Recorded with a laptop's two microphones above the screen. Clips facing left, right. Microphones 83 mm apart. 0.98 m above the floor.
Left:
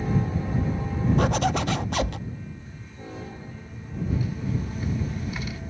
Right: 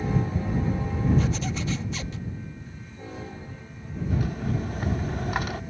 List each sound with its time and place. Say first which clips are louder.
1.2 s a zipper: left 5 dB; 65° left (ahead or behind)
4.1 s a rattle: right 1 dB; 65° right (ahead or behind)